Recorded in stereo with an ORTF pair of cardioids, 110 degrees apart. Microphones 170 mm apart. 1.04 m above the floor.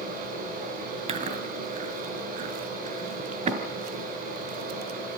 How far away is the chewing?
About 2.5 m.